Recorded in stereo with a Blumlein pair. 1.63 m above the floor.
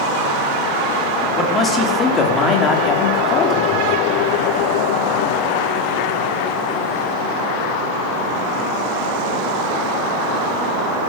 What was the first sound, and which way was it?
A man speaking, 20° left.